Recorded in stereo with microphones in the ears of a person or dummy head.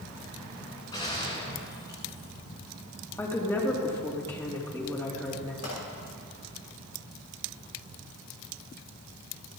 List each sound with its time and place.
0.9 s a gunshot: 25° left (ahead or behind), 3.5 m
3.2 s a woman speaking: 15° left (ahead or behind), 3 m
5.6 s a pop: 55° left (ahead or behind), 6.5 m